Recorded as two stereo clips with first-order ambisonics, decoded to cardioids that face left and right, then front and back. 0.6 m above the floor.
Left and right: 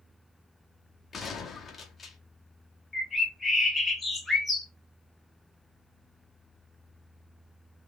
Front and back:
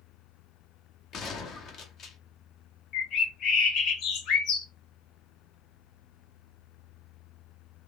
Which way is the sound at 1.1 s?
25° left.